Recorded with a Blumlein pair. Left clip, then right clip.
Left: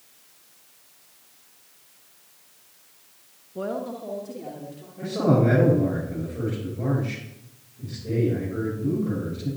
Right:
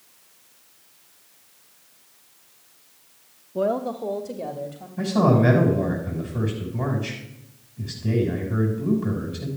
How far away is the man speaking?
About 5.5 m.